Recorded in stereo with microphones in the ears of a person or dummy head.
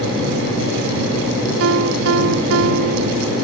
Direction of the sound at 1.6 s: 85° right.